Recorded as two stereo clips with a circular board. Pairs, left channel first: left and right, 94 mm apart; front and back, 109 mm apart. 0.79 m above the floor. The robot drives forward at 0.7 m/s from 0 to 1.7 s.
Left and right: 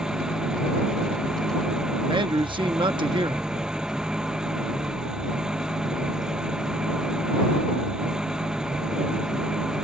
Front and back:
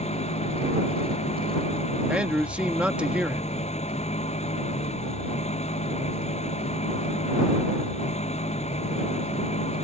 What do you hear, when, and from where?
0.0 s an engine running: 5° right
2.1 s a man speaking: 100° right